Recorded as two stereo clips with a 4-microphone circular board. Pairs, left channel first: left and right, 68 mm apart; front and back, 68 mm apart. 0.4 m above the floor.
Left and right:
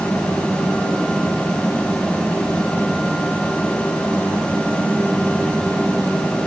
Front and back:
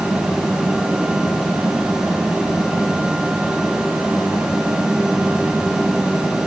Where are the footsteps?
No footsteps in this recording.